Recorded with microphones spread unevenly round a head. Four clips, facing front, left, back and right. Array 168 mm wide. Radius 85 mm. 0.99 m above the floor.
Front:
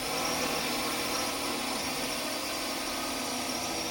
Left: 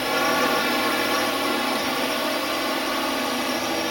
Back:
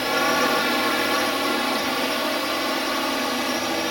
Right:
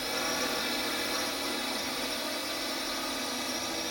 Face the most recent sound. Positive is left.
turn(degrees=140)